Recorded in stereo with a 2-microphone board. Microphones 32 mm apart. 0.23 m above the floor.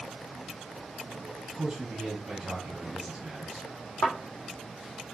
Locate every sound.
1.5 s a man speaking: 30° right (ahead or behind), 1.5 m
4.0 s a thud: 40° left (ahead or behind), 1.7 m